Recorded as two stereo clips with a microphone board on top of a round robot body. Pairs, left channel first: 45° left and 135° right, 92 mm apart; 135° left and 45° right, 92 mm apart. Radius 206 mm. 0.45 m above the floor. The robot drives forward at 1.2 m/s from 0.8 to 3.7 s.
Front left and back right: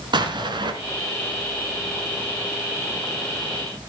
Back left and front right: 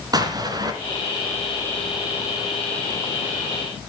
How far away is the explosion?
About 1.6 m.